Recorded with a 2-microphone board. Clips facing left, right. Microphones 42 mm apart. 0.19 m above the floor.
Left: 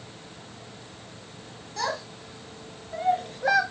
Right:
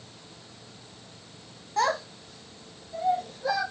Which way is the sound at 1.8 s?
35° right (ahead or behind).